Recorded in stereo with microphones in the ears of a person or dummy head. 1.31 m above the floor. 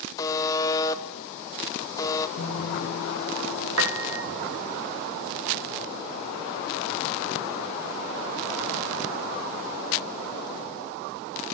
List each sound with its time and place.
0.2 s a buzzer: 15° left (ahead or behind), 0.8 m
2.4 s a guitar: 80° left, 4 m
3.8 s a piano: 70° right (ahead or behind), 1.1 m